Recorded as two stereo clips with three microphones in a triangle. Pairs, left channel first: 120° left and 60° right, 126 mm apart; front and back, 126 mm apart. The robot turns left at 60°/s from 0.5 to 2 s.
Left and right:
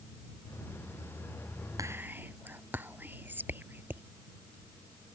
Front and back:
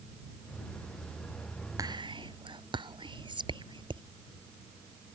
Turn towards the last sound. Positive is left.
turn(degrees=-135)